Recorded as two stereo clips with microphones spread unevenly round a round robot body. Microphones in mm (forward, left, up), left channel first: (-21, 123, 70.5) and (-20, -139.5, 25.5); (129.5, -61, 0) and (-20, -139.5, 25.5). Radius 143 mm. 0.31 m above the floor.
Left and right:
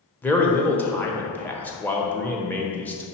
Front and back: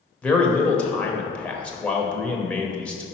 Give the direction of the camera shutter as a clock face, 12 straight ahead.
No camera shutter in this recording.